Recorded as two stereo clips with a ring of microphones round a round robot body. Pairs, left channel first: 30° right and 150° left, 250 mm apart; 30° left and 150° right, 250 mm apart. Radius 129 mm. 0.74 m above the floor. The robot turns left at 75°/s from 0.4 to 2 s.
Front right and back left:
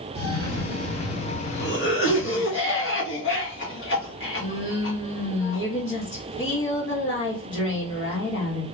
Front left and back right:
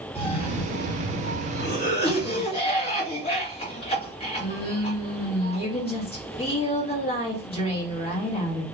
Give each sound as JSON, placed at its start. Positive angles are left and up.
{"t": 0.1, "sound": "a cough", "azimuth_deg": 90, "distance_m": 1.5}